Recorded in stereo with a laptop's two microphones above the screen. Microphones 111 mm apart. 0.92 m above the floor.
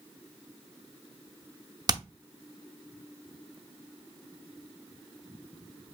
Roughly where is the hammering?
Right.